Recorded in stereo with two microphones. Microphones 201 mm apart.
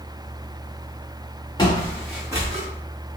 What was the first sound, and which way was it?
Footsteps, 20° left (ahead or behind).